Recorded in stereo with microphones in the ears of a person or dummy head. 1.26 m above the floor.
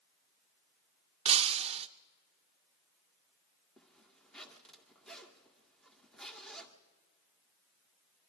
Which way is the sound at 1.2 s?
30° right (ahead or behind).